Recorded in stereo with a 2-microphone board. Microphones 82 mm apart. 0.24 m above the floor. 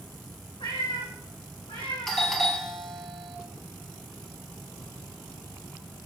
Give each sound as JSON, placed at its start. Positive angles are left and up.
{"t": 0.6, "sound": "a cat meowing", "side_deg": 85, "distance_m": 5.0}
{"t": 2.1, "sound": "a doorbell", "side_deg": 5, "distance_m": 2.5}